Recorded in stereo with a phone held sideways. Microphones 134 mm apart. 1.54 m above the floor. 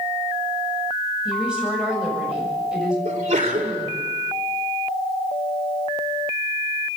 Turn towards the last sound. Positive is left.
turn(degrees=-80)